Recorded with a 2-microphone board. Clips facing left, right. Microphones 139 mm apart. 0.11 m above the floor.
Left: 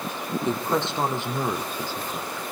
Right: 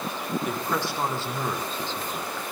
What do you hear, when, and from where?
0.5 s a woman speaking: 25° left (ahead or behind), 4 m; by 2.4 s 5° left (ahead or behind), 4.5 m